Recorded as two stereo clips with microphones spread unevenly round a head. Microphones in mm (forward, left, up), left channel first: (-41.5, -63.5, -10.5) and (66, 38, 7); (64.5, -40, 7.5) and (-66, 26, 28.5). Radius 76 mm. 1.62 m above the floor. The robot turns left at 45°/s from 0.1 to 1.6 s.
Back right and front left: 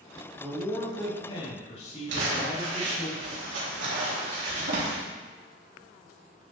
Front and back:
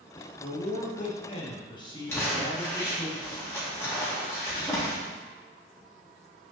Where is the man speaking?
35° right, 3 m; by 3.1 s 90° right, 3 m.